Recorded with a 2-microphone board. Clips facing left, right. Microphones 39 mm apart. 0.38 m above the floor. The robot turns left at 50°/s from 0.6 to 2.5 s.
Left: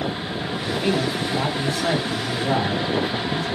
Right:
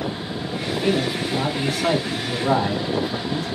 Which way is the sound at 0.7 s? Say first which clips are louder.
Right 1 dB; 50° left.